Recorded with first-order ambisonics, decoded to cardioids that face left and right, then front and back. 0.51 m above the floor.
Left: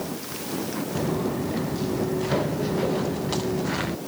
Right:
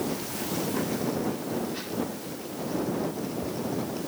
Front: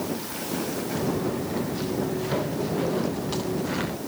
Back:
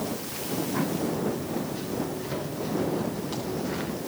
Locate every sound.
0.9 s footsteps: 70° left; by 4.0 s 75° left